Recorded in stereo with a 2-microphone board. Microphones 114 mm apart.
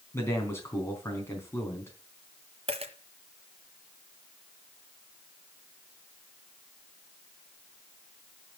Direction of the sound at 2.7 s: 60° right (ahead or behind).